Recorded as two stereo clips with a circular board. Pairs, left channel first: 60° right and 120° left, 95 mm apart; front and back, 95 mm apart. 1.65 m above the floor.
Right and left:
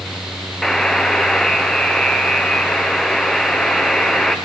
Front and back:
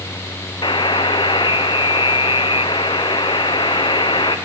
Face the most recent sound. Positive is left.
turn(degrees=25)